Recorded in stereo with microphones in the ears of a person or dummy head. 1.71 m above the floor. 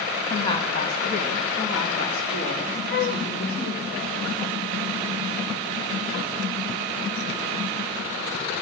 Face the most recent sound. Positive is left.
turn(degrees=40)  # may be behind; listen again after turning